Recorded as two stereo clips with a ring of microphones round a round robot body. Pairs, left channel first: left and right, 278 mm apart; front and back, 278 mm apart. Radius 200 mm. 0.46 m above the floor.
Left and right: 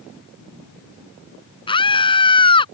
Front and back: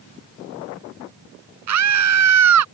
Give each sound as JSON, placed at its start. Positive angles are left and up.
{"t": 1.7, "sound": "a scream", "azimuth_deg": 165}